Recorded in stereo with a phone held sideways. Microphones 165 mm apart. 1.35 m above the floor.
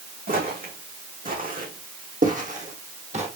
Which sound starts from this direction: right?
Footsteps, at 0.3 s.